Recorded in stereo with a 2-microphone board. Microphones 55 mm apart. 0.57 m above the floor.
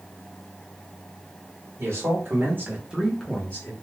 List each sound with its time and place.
1.8 s a man speaking: 55° right (ahead or behind), 1.6 m; by 3.7 s 40° left (ahead or behind), 0.9 m